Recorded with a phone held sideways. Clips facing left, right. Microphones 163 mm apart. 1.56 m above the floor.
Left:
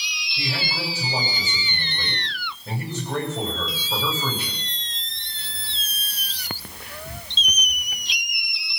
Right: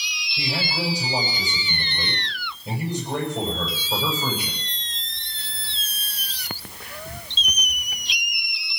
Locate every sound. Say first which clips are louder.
0.4 s a man speaking: right 2 dB; 15° right (ahead or behind), 7.5 m